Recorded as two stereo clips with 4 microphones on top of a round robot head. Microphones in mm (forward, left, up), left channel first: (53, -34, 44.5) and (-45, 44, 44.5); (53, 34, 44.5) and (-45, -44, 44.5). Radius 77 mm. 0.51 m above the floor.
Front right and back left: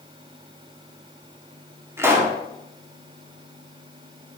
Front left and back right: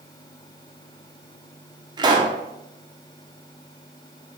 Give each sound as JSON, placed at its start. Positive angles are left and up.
{"t": 2.0, "sound": "a pop", "azimuth_deg": -160, "distance_m": 1.4}